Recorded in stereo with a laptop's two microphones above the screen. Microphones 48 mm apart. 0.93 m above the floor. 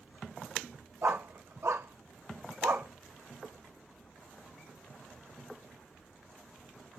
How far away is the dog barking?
About 1.2 m.